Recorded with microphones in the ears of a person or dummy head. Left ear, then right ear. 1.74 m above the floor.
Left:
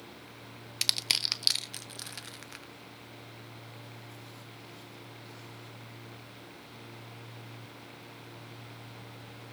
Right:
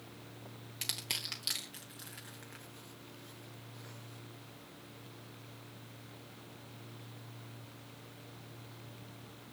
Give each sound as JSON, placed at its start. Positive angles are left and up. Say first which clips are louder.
{"t": 0.8, "sound": "crushing", "louder": "left 10 dB", "side_deg": 35, "distance_m": 0.7}